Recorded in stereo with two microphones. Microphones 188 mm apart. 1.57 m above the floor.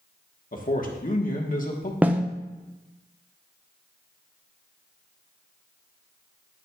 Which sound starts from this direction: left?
A man speaking, at 0.5 s.